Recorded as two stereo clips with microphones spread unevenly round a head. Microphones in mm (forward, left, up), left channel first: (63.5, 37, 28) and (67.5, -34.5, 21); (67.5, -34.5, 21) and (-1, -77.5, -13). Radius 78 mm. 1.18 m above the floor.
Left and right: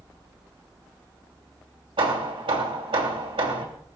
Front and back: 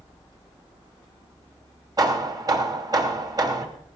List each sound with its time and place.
2.0 s hammering: 100° right, 2.5 m